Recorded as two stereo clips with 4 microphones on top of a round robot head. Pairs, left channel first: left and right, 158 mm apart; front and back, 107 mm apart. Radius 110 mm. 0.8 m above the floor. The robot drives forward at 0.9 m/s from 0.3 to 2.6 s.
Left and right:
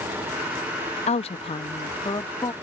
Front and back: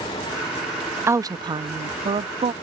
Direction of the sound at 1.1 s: 120° left.